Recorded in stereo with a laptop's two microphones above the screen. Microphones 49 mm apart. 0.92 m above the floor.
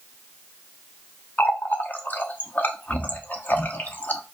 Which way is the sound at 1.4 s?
35° left (ahead or behind).